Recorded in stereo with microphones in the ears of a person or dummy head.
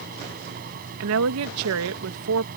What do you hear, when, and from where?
0.0 s a fan: 45° right (ahead or behind)
1.0 s a woman speaking: 70° right (ahead or behind)